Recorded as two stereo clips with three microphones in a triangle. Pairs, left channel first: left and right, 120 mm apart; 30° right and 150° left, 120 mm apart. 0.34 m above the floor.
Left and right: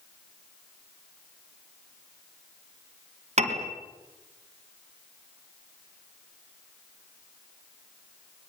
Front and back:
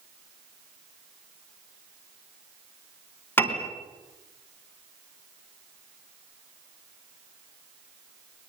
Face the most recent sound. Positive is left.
turn(degrees=-100)